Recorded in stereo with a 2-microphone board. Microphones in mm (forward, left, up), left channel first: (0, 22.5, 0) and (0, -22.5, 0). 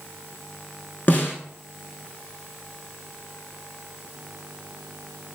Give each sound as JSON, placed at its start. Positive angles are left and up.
{"t": 1.1, "sound": "a snare drum", "side_deg": 40, "distance_m": 0.6}